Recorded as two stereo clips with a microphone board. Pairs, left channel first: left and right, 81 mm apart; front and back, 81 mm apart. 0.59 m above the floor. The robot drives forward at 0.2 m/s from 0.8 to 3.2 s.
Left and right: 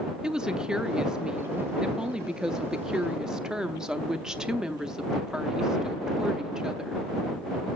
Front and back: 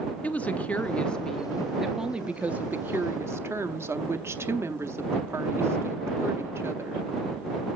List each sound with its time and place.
0.2 s a woman speaking: 30° right, 0.6 m; by 7.1 s 165° right, 0.6 m